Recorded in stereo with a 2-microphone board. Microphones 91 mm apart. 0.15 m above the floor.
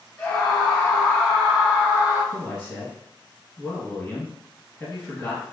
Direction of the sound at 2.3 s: 10° left (ahead or behind).